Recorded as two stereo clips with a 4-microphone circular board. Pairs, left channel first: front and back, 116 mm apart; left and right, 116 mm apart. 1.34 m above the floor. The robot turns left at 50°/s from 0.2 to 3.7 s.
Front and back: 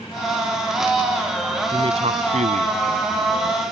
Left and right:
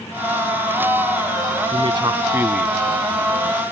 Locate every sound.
1.7 s a man speaking: 130° right; by 3.6 s 135° left